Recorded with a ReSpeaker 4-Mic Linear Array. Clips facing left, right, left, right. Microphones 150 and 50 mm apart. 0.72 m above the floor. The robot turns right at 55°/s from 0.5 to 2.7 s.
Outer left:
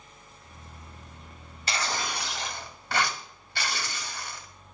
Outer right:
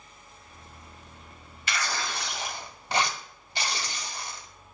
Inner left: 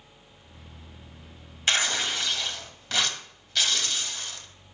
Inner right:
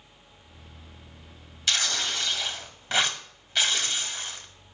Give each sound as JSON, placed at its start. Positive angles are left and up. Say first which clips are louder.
{"t": 1.7, "sound": "tearing paper", "louder": "outer left 1 dB, inner left 3 dB", "azimuth_deg": 140, "distance_m": 1.0}